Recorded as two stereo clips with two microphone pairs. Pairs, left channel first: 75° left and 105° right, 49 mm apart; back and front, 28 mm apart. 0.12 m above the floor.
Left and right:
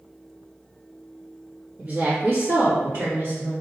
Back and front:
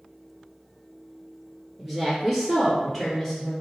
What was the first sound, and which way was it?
A woman speaking, 70° right.